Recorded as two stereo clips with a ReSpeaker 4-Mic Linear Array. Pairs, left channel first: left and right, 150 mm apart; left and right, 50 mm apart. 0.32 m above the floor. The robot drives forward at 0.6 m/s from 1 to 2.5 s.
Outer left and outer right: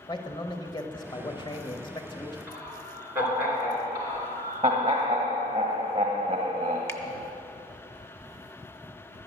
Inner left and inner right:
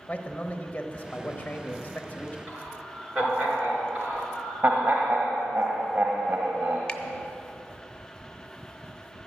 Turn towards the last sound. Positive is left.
turn(degrees=15)  # may be behind; listen again after turning